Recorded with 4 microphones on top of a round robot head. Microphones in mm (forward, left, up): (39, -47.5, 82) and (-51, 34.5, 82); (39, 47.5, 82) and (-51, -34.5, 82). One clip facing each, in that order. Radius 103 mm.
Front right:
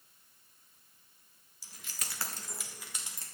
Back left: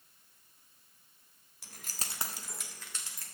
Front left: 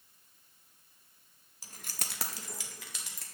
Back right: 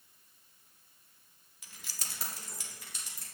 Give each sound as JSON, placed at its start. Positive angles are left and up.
{"t": 1.6, "sound": "keys jangling", "azimuth_deg": 100, "distance_m": 0.7}